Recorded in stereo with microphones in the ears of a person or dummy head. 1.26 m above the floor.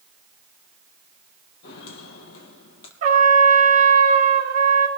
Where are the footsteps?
65° left (ahead or behind), 2.5 m; by 2.9 s 55° left (ahead or behind), 2.5 m.